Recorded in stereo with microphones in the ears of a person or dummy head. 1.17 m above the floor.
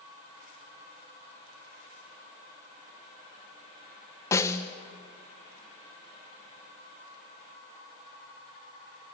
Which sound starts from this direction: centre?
A snare drum, at 4.3 s.